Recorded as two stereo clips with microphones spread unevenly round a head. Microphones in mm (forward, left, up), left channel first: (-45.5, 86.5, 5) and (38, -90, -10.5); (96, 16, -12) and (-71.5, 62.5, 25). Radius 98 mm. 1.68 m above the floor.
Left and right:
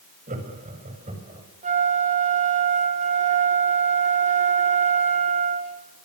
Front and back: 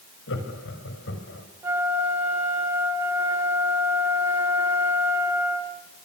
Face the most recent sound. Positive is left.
turn(degrees=-120)